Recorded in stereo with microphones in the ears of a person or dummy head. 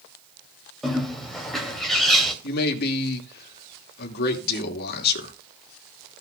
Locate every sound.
0.8 s a bird: 5° left (ahead or behind), 2.5 m
2.4 s a man speaking: 55° left (ahead or behind), 2.5 m